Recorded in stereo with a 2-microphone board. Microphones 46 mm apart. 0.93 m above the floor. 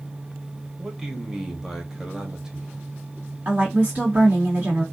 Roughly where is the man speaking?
Centre.